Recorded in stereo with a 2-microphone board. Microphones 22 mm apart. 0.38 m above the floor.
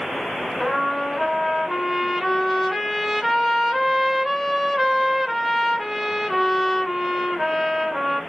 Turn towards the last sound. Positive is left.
turn(degrees=0)  # may be behind; listen again after turning